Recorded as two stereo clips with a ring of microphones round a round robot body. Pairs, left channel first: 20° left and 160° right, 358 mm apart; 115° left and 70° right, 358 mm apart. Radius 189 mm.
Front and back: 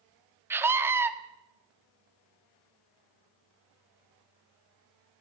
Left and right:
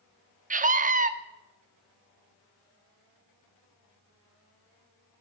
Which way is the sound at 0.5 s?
85° right.